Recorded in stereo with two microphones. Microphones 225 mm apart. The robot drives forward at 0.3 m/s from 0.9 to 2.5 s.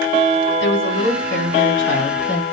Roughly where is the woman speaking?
Left.